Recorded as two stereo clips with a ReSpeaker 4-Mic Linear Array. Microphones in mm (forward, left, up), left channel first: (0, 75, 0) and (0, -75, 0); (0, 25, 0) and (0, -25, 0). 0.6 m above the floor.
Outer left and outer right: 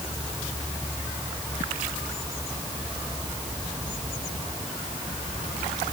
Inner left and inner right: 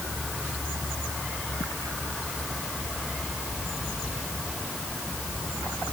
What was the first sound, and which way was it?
Only background noise.